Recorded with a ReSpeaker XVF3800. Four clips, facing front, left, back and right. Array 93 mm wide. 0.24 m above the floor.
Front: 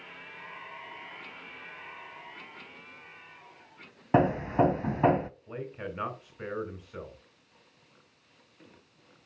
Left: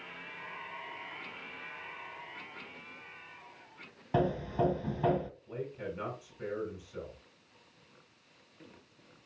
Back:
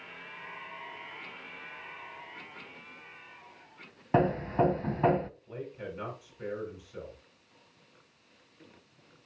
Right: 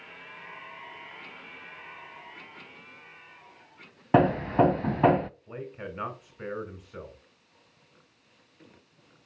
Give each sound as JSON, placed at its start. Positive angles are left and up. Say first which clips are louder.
{"t": 4.1, "sound": "hammering", "louder": "right 9 dB, front 2 dB", "azimuth_deg": -75, "distance_m": 0.5}
{"t": 5.5, "sound": "a man speaking", "louder": "right 1 dB, front 2 dB", "azimuth_deg": -45, "distance_m": 3.0}